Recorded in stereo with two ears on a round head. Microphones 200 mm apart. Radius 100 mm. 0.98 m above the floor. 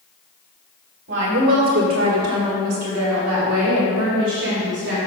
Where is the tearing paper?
I don't hear tearing paper.